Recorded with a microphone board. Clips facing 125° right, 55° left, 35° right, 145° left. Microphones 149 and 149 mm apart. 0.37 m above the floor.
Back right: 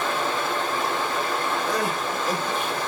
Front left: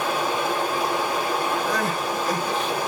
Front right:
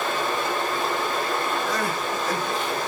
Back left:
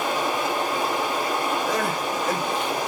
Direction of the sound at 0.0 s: 110° left.